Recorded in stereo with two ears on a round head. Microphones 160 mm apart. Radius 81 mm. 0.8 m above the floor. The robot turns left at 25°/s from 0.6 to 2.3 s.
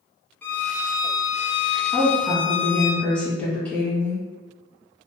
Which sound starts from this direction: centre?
A woman speaking, at 1.9 s.